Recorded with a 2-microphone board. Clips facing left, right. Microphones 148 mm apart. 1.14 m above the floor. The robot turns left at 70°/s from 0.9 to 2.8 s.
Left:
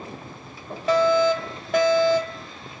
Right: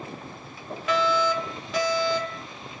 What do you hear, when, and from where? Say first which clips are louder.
0.9 s a fire alarm: left 6 dB; 140° left, 2 m; by 2.5 s 30° left, 2 m